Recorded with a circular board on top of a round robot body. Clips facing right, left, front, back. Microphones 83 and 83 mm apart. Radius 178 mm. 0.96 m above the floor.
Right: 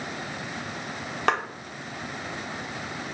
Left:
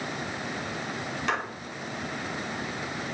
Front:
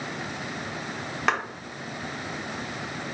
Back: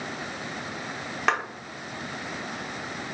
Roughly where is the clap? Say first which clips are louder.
Right 5 dB, even; right.